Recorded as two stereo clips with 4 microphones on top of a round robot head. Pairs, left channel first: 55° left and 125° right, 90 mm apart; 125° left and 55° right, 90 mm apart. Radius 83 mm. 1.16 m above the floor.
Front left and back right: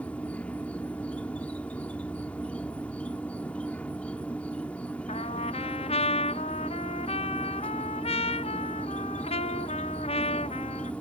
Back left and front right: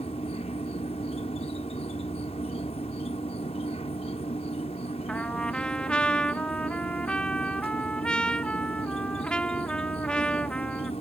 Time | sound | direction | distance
0.0 | an insect | 125° left | ?
5.1 | a trumpet | 45° left | ?